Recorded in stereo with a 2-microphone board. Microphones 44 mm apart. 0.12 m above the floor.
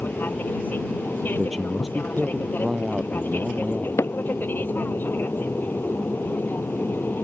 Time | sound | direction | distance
0.0 | an aircraft | 50° left (ahead or behind) | ?
1.3 | a man speaking | centre (ahead or behind) | ?
4.0 | hammering | 85° left | ?